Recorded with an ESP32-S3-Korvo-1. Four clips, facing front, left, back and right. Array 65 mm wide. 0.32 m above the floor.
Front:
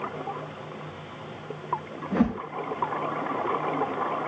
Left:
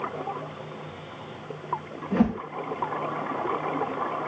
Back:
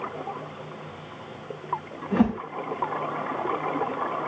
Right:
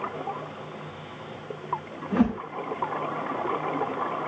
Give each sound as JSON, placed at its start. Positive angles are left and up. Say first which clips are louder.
{"t": 2.1, "sound": "a whoosh", "louder": "even, back 2 dB", "azimuth_deg": 170, "distance_m": 1.1}